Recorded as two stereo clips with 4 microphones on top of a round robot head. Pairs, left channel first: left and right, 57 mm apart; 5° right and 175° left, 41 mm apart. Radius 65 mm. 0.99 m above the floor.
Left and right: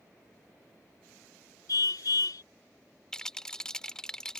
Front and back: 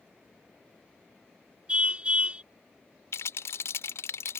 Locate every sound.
1.7 s a car horn: 110° left
3.1 s a rattle: 10° left